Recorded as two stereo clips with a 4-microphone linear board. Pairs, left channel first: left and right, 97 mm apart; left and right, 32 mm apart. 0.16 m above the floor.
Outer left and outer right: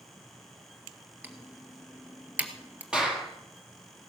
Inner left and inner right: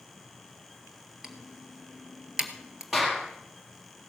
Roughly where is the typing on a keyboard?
Centre.